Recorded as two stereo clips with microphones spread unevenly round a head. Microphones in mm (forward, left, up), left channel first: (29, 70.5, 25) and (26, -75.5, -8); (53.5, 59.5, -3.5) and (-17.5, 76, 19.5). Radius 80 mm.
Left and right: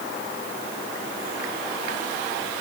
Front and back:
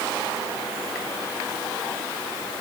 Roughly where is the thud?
I don't hear a thud.